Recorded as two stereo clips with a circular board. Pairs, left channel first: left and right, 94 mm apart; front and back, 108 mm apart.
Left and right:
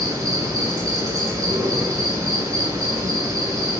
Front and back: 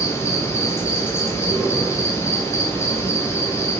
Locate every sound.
0.0 s an insect: 55° right, 0.7 m